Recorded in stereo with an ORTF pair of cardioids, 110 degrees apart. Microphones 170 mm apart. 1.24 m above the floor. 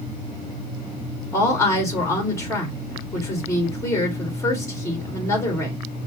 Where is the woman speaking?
15° left, 3 m.